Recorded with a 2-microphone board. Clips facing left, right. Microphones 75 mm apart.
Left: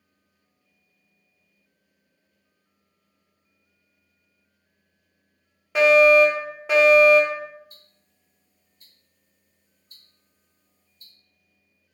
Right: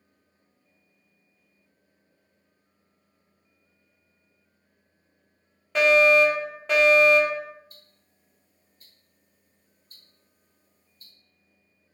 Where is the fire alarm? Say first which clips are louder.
Left 4 dB; 10° left (ahead or behind), 1.4 m.